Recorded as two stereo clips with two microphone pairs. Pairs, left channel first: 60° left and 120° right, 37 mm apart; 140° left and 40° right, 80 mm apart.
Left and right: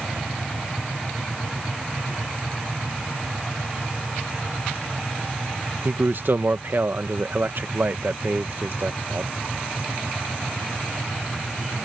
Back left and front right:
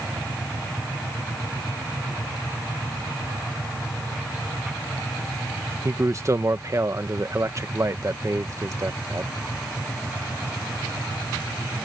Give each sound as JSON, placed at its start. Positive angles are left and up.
{"t": 5.8, "sound": "a man speaking", "azimuth_deg": -90}